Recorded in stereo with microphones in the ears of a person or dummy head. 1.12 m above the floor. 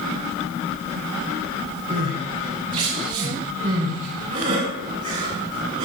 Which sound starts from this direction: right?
Crying, at 1.9 s.